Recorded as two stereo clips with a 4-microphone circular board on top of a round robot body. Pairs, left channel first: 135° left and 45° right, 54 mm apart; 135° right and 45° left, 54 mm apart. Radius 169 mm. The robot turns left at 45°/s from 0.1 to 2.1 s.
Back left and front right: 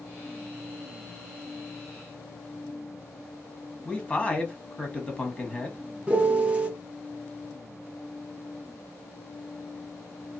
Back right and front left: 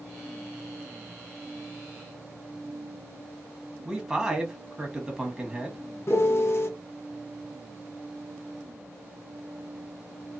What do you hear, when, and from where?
3.9 s a man speaking: 105° left, 1.3 m
6.1 s a piano: 110° right, 1.0 m